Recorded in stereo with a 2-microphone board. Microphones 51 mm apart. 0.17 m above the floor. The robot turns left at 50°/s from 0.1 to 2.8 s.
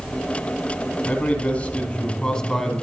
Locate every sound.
1.1 s a man speaking: 25° left (ahead or behind), 1.6 m; by 2.8 s 5° left (ahead or behind), 1.6 m